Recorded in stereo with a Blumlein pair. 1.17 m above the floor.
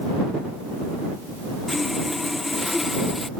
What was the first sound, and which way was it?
Sawing, 10° left.